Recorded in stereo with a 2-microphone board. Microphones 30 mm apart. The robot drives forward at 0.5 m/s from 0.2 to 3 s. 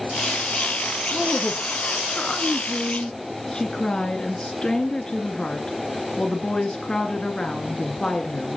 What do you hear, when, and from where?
1.1 s a woman speaking: 25° left (ahead or behind), 1.6 m; by 8.6 s 30° left (ahead or behind), 1.6 m